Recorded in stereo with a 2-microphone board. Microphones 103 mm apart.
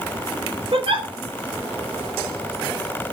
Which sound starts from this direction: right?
A giggle, at 0.7 s.